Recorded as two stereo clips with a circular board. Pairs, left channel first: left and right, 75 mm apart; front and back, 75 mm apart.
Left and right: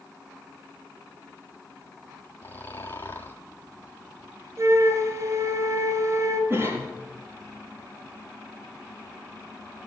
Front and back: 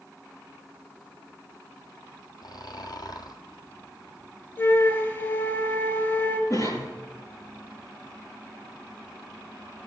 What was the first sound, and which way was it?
Snoring, 25° left.